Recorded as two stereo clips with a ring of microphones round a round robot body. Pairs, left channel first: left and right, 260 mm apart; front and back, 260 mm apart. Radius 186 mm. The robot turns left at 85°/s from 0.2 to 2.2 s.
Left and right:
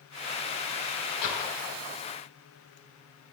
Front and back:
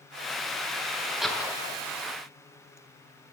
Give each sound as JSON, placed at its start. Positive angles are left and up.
{"t": 1.2, "sound": "a door slam", "azimuth_deg": 95, "distance_m": 4.0}